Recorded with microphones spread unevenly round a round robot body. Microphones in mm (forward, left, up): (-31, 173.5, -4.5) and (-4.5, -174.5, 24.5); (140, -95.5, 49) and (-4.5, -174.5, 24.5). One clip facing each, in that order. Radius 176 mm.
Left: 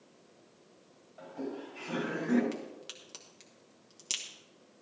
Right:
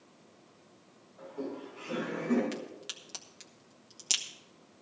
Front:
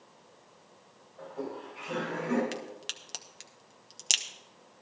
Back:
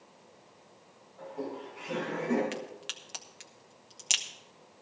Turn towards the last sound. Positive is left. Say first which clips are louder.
# right 1 dB, even
turn(degrees=-5)